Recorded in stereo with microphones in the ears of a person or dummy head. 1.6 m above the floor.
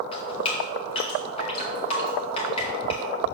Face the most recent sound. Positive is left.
turn(degrees=35)  # may be behind; listen again after turning